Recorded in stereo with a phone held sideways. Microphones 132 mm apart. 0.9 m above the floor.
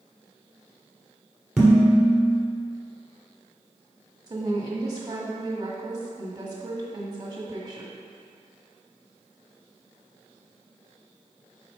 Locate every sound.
1.6 s dishes clattering: 5° right (ahead or behind), 1.8 m
4.3 s a woman speaking: 30° right (ahead or behind), 1.4 m